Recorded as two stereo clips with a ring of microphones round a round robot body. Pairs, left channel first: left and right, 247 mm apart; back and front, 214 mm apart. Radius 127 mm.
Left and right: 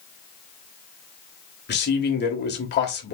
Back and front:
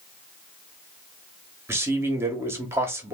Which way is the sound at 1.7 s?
75° left.